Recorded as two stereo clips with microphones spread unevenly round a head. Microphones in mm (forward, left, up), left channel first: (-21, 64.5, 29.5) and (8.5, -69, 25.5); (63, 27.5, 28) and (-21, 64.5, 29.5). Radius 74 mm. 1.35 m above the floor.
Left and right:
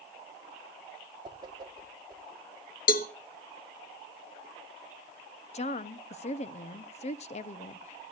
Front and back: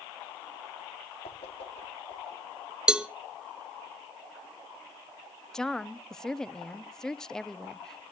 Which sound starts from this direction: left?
A cowbell, at 2.9 s.